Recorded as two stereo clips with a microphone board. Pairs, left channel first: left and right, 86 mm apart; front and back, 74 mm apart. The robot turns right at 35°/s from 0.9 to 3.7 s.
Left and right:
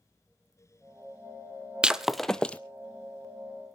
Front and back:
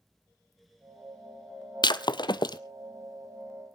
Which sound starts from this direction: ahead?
Breaking glass, at 1.8 s.